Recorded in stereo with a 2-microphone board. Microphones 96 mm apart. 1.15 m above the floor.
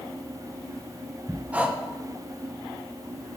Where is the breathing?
15° right (ahead or behind), 0.6 m.